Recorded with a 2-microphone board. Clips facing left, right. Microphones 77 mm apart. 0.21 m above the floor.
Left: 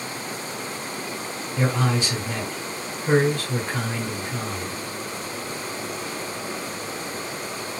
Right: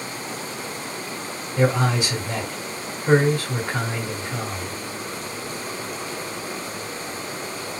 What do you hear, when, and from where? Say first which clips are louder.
1.6 s a man speaking: right 3 dB; 10° right (ahead or behind), 1.5 m